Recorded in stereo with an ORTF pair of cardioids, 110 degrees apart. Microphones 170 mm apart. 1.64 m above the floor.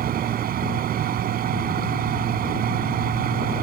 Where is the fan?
60° right.